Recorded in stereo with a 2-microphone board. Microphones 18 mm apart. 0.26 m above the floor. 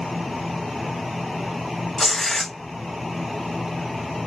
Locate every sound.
2.0 s tearing paper: 25° left (ahead or behind), 0.6 m